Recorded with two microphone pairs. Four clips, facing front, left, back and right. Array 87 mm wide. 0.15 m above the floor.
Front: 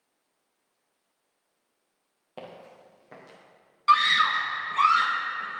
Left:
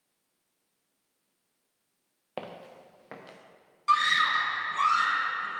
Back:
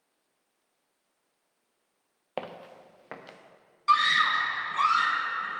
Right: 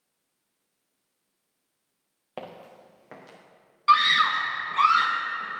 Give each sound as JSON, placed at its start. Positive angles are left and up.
{"t": 2.4, "sound": "footsteps", "azimuth_deg": 180, "distance_m": 1.1}
{"t": 3.9, "sound": "a scream", "azimuth_deg": -65, "distance_m": 1.1}